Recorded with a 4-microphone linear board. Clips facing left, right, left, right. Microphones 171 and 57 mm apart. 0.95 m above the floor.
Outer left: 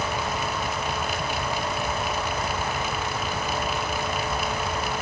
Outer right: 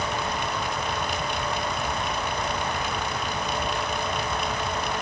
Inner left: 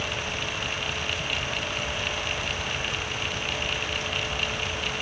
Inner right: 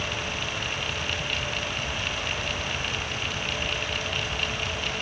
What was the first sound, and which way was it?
Only background noise.